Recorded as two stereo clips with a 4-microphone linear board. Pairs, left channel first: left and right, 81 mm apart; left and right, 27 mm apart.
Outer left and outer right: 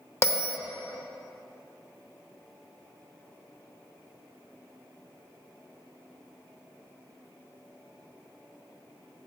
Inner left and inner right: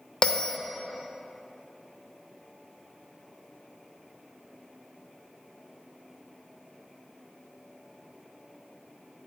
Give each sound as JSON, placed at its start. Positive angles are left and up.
{"t": 0.2, "sound": "a bell", "side_deg": 35, "distance_m": 0.7}